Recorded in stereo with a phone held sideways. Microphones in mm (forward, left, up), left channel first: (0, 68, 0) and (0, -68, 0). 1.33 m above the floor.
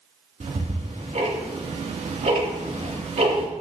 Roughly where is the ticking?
Right.